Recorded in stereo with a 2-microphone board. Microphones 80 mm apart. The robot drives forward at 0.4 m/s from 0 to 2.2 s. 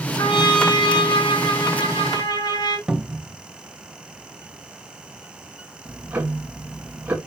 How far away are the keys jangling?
No keys jangling in this recording.